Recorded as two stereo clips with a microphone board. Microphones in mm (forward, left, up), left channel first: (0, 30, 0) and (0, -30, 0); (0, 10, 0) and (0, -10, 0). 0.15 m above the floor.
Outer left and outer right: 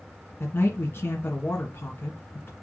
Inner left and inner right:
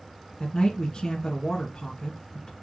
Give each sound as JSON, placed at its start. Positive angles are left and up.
{"t": 0.4, "sound": "a man speaking", "side_deg": 35, "distance_m": 2.0}